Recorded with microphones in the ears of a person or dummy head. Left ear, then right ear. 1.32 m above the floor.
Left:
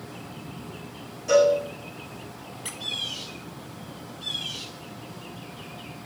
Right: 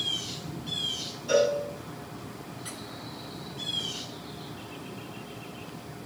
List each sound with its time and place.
1.3 s a cowbell: 40° left (ahead or behind), 9.5 m
2.6 s a squeak: 15° left (ahead or behind), 0.9 m